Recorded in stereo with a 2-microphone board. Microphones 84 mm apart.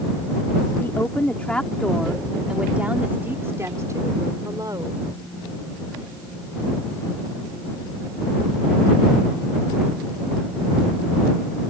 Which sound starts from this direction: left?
A woman speaking, at 0.8 s.